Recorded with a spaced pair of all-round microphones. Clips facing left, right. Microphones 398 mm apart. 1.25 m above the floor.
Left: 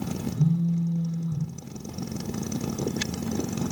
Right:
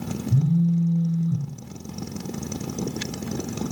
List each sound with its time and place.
0.3 s a phone buzzing: 40° right (ahead or behind), 1.4 m